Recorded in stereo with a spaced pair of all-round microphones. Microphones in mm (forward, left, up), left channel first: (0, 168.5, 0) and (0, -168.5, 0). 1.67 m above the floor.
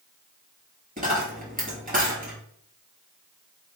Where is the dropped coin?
25° right (ahead or behind), 1.8 m.